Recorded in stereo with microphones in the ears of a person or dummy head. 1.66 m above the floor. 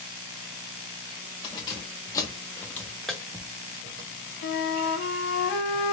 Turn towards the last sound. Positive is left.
turn(degrees=50)  # may be behind; listen again after turning